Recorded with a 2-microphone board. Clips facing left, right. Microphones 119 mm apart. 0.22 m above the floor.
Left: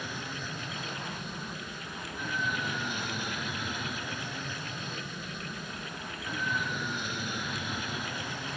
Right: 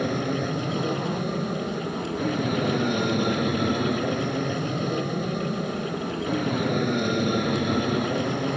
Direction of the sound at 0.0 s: 60° right (ahead or behind).